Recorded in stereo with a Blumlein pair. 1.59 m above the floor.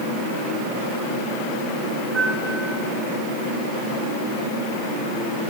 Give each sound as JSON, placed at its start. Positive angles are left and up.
{"t": 2.1, "sound": "a piano", "azimuth_deg": -15, "distance_m": 7.5}